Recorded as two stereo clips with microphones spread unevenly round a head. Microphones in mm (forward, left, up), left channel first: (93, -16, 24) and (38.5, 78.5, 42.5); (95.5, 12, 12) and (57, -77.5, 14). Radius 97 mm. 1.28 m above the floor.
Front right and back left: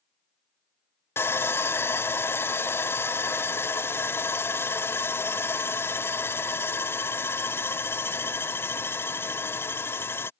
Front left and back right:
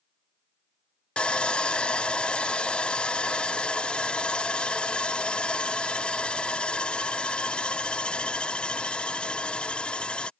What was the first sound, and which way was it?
Sawing, 10° right.